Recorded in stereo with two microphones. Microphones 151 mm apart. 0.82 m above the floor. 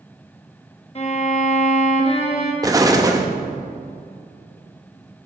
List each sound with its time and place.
0.9 s a violin: 40° left (ahead or behind), 1.3 m
2.6 s an explosion: 20° right (ahead or behind), 0.8 m